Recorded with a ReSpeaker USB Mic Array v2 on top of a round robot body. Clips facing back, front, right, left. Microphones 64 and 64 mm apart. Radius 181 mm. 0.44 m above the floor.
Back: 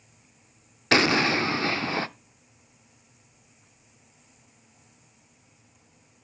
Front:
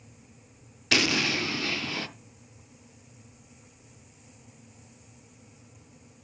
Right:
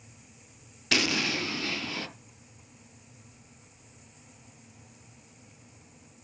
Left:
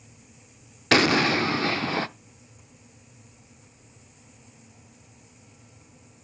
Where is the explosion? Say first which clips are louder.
Back 5 dB, left 9 dB; 130° left, 0.5 m.